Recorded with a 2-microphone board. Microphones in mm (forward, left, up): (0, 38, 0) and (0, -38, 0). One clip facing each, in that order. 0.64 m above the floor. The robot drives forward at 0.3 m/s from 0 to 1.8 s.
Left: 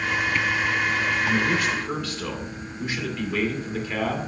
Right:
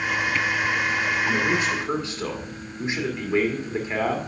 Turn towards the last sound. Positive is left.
turn(degrees=-20)  # may be behind; listen again after turning